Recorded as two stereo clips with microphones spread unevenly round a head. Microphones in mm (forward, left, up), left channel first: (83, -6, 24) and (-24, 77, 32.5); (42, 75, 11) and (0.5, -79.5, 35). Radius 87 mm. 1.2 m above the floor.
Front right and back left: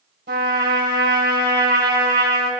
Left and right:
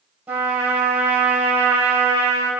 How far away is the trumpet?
About 3 m.